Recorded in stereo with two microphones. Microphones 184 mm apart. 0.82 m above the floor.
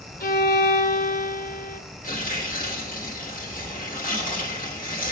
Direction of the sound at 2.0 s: 50° left (ahead or behind).